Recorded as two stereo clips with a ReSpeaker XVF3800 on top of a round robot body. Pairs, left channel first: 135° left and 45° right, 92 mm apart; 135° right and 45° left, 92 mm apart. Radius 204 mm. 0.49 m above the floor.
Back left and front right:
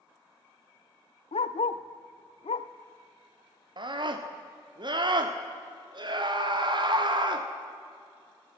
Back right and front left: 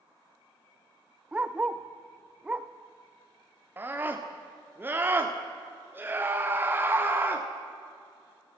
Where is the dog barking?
120° left, 0.6 m.